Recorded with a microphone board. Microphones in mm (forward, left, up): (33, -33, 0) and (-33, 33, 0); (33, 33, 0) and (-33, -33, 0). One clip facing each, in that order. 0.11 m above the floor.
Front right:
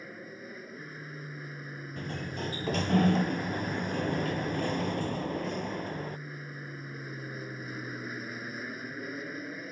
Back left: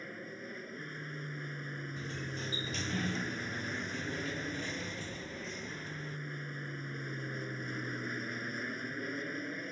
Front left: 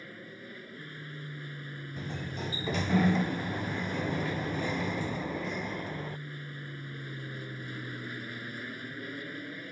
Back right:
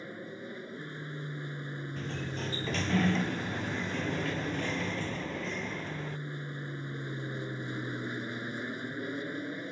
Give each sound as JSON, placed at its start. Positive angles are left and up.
{"t": 0.0, "sound": "an aircraft", "azimuth_deg": -125}
{"t": 2.0, "sound": "a sliding door", "azimuth_deg": -30}